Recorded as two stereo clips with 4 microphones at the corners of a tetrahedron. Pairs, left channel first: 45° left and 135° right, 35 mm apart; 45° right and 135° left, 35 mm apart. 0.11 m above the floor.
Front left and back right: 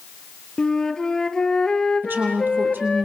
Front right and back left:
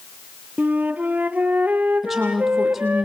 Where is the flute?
115° left, 1.2 m.